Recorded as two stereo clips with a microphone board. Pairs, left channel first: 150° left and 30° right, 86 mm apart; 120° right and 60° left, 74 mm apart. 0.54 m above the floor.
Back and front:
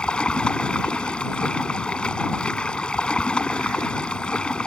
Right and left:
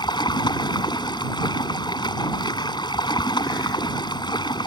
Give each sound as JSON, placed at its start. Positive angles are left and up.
{"t": 0.0, "sound": "running water", "azimuth_deg": -130}